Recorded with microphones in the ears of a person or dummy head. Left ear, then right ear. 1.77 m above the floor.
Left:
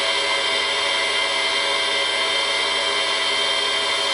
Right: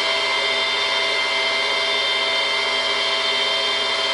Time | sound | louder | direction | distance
0.0 | a machine running | right 1 dB | centre (ahead or behind) | 0.8 m